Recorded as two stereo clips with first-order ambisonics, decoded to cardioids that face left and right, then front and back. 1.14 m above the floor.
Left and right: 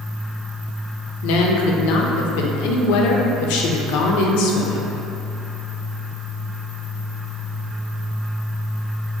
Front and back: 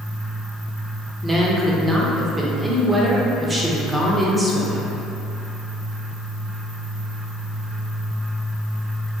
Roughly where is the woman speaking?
Left.